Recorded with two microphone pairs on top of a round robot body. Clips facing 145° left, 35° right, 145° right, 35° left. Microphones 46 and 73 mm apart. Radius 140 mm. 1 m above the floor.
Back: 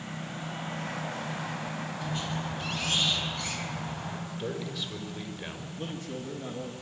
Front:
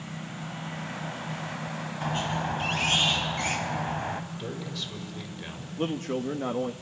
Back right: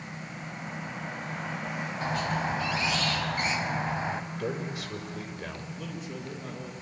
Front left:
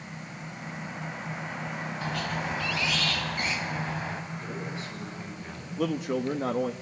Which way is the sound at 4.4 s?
130° right.